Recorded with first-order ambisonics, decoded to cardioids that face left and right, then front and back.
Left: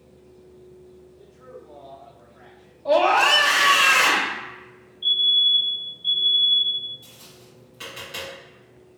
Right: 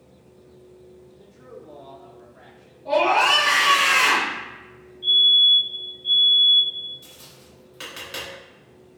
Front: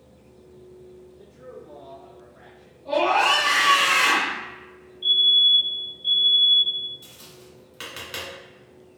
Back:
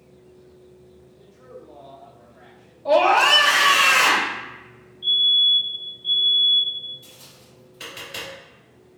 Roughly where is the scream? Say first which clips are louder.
Left 1 dB, back 4 dB; behind left.